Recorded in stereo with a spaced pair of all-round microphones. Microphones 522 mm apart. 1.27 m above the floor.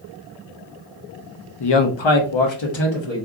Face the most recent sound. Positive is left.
turn(degrees=60)  # may be behind; listen again after turning